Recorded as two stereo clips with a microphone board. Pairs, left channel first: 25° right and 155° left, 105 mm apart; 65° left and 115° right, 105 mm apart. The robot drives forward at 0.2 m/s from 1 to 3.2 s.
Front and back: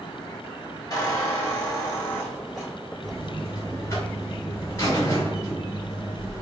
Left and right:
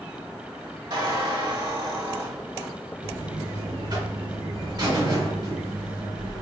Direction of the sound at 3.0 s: 75° right.